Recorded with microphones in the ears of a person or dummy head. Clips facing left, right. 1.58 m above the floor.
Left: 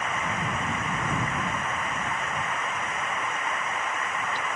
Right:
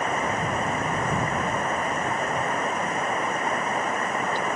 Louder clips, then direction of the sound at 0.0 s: Right 5 dB; 40° right (ahead or behind).